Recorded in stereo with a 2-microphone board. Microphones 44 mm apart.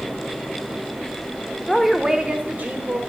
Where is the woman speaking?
10° left (ahead or behind), 0.8 m; by 3.0 s 55° right (ahead or behind), 1.2 m.